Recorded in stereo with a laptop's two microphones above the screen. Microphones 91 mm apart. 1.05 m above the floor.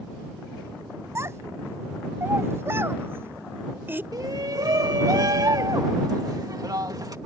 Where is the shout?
45° right (ahead or behind).